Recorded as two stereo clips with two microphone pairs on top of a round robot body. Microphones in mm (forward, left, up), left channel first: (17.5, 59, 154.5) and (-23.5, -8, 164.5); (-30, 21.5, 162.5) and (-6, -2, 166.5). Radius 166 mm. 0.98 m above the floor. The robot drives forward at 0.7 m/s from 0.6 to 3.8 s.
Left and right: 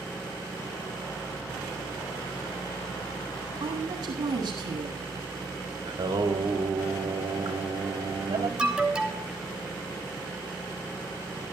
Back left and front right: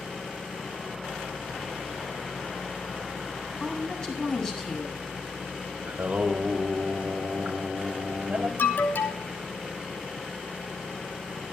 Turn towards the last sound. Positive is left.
turn(degrees=160)